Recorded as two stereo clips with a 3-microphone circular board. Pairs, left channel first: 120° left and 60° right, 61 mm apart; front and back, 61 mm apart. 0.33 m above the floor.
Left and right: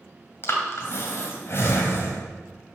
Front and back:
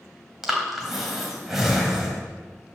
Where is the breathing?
100° left, 1.8 m.